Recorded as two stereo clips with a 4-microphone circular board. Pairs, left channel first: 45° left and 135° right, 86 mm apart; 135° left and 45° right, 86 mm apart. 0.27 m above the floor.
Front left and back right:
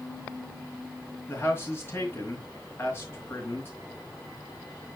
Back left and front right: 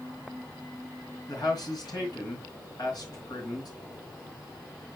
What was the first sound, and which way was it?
A man speaking, 105° left.